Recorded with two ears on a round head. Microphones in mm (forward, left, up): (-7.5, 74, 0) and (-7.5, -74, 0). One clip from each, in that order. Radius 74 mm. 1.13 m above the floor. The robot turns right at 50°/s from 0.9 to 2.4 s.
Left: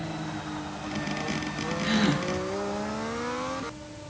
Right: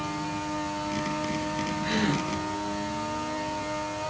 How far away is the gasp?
About 4 m.